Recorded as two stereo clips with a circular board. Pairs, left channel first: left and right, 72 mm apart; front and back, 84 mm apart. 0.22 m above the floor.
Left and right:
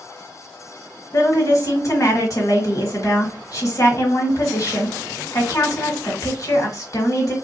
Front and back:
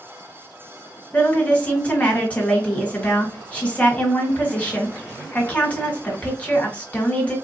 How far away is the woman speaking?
About 1.8 m.